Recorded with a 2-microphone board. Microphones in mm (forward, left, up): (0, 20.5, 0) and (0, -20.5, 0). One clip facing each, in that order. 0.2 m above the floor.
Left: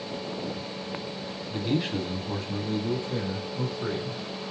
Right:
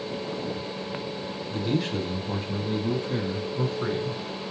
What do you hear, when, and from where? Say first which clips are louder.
1.5 s a man speaking: even; 20° left (ahead or behind), 1.1 m; by 4.2 s 55° right (ahead or behind), 1.9 m